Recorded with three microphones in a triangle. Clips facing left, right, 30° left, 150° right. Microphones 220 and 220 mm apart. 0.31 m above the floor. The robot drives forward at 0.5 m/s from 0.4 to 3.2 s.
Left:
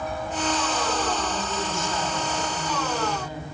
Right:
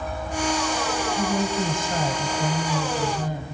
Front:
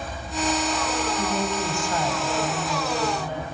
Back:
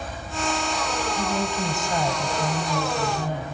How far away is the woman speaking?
About 1.4 m.